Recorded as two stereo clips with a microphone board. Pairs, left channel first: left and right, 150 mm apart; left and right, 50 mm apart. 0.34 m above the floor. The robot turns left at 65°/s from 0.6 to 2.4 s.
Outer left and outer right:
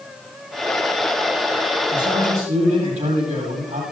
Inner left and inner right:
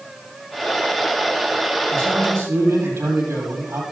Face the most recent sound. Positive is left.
turn(degrees=-135)